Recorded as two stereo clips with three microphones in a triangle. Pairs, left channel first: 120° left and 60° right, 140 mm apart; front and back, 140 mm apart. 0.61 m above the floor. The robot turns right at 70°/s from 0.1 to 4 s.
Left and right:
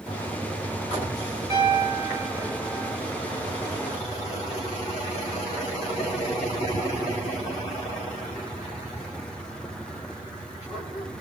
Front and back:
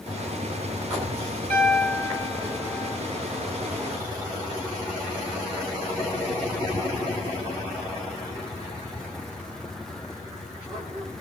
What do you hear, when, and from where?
1.5 s a piano: 70° right, 1.1 m; by 3.0 s 35° left, 1.1 m